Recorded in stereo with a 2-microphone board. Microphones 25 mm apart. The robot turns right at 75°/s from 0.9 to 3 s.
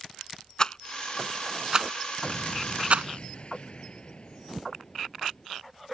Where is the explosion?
75° left; by 5.5 s 135° left.